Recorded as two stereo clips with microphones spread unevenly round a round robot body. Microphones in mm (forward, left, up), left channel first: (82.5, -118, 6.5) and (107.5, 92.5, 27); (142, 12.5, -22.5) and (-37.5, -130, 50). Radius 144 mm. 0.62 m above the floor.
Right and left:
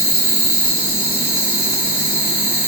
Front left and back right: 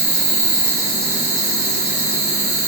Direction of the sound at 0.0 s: 145° left.